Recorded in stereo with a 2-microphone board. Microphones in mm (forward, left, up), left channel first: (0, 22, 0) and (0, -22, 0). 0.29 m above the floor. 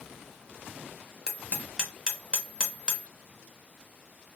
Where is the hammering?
15° right (ahead or behind), 1.0 m.